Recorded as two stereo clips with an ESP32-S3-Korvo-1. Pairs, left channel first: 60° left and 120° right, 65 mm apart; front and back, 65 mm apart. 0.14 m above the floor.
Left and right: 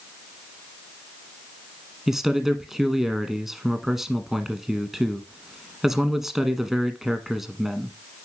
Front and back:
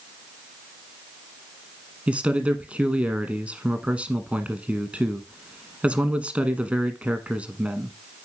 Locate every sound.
2.1 s a man speaking: 165° left, 1.2 m